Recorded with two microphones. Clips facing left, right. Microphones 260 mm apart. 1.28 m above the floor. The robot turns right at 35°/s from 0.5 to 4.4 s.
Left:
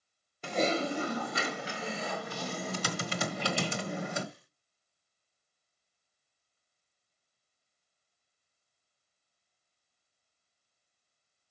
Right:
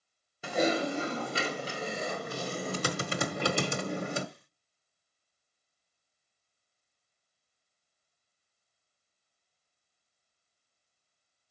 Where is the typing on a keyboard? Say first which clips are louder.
Right 2 dB; 170° right, 1.7 m; by 4.2 s 40° right, 1.7 m.